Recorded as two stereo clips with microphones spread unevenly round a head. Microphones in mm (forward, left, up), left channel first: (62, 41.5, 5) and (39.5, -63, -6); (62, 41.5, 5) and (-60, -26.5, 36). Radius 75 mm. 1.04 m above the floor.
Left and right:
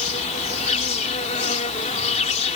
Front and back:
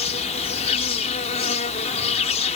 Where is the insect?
70° left.